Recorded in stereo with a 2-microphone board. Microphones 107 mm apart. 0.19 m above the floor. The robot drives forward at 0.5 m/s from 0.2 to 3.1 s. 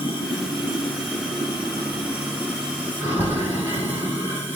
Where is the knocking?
Centre (ahead or behind), 1.1 m.